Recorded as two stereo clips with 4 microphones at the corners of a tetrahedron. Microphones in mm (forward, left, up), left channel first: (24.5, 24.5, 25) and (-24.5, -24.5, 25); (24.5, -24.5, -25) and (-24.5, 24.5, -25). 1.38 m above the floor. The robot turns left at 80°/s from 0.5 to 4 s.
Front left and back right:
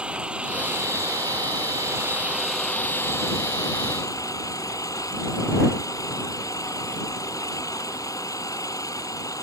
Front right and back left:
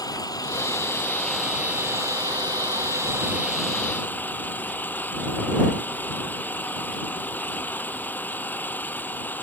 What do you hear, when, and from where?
0.0 s an engine running: 60° right; by 9.4 s 20° left